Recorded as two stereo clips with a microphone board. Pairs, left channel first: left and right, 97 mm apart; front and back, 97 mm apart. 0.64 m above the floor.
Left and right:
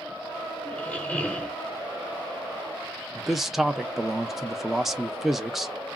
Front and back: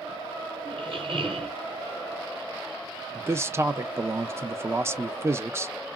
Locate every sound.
0.7 s a squeak: 160° left, 1.1 m
3.1 s a man speaking: 175° right, 0.5 m